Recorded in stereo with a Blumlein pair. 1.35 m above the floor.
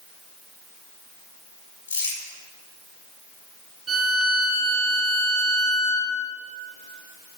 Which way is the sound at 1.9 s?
60° left.